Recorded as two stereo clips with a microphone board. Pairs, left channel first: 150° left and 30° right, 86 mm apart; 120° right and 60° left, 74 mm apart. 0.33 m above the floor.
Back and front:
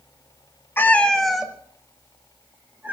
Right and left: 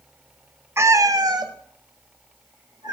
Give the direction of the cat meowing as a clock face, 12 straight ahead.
9 o'clock.